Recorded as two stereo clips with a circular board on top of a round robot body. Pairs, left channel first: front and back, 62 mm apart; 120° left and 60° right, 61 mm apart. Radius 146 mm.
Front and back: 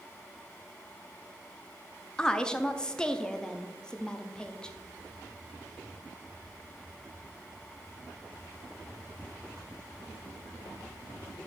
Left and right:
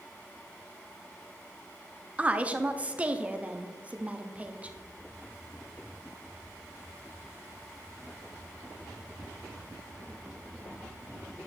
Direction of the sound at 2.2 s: 55° right.